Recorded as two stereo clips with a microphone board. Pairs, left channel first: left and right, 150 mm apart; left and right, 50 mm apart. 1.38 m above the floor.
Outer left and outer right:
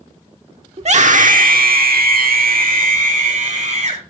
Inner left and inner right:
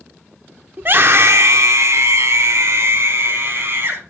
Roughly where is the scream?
Right.